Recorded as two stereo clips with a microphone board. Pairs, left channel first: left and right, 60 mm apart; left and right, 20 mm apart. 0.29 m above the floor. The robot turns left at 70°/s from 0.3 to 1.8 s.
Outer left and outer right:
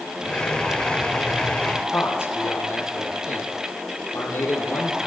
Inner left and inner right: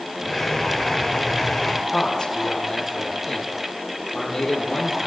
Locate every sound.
1.9 s a man speaking: 40° left (ahead or behind), 9 m